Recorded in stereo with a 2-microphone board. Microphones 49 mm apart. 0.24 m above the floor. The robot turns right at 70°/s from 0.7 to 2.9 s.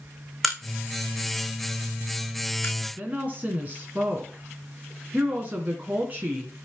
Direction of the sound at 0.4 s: 5° right (ahead or behind).